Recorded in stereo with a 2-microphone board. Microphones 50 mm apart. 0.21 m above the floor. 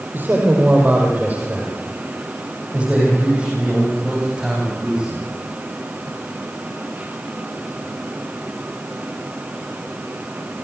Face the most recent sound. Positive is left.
turn(degrees=-10)  # may be behind; listen again after turning